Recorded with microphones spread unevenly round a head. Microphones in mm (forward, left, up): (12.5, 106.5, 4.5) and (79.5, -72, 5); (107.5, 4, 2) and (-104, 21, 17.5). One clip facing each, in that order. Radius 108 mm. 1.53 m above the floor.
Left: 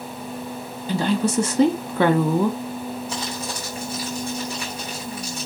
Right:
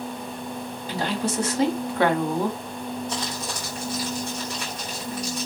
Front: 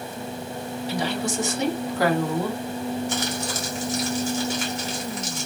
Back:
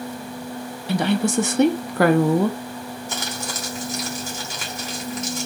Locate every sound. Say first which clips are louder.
0.9 s a woman speaking: left 6 dB, back 7 dB; 135° left, 0.8 m
3.1 s crumpling: left 1 dB, front 3 dB; 165° right, 2.5 m